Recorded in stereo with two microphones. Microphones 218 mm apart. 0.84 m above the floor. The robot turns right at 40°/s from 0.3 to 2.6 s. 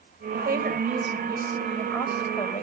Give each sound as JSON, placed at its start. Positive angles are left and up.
{"t": 0.3, "sound": "a woman speaking", "azimuth_deg": -55, "distance_m": 3.5}